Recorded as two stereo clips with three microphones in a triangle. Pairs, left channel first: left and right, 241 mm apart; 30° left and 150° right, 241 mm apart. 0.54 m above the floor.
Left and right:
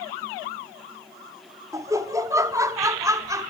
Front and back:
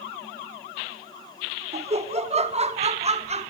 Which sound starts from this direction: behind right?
Laughter, at 1.7 s.